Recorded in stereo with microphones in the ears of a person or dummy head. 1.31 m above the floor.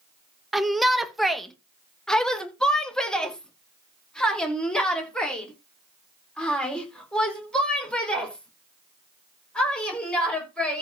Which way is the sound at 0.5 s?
Centre (ahead or behind).